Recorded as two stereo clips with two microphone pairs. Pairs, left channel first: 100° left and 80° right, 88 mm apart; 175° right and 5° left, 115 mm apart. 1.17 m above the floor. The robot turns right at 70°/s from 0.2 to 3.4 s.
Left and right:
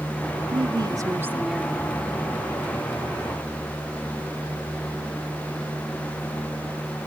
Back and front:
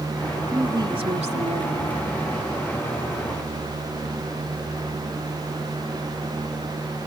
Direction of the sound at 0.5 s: 65° right.